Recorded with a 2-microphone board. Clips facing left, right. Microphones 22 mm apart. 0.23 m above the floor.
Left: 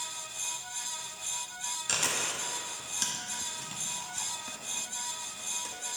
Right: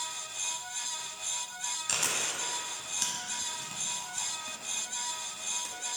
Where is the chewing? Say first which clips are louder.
Left 1 dB; centre (ahead or behind), 1.0 m.